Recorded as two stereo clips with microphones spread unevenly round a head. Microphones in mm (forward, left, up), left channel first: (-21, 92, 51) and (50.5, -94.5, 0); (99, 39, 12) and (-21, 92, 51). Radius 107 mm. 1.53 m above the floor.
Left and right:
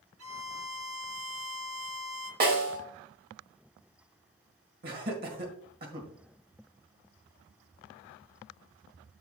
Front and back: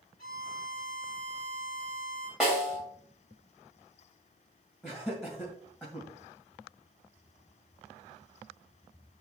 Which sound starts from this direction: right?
A violin, at 0.2 s.